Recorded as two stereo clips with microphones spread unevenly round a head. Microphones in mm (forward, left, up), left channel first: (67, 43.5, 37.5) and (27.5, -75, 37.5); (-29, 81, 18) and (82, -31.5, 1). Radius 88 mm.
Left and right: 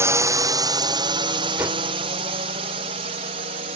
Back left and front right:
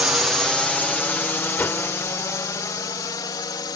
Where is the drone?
115° right; by 3.8 s 155° right.